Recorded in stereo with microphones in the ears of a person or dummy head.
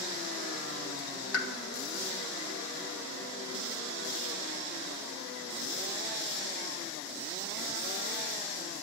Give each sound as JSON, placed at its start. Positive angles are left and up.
{"t": 1.3, "sound": "a pop", "side_deg": 80, "distance_m": 1.7}